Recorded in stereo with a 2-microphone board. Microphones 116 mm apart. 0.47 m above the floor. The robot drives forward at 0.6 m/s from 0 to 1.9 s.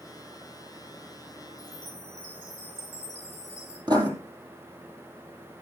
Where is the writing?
35° right (ahead or behind), 2.5 m.